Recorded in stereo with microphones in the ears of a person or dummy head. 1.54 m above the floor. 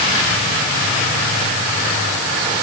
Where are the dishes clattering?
I don't hear dishes clattering.